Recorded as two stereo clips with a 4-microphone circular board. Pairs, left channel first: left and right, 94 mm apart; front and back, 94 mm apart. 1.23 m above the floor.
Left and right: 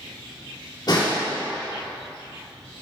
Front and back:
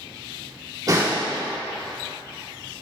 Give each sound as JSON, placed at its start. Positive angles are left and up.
{"t": 0.9, "sound": "a snare drum", "azimuth_deg": 130, "distance_m": 2.5}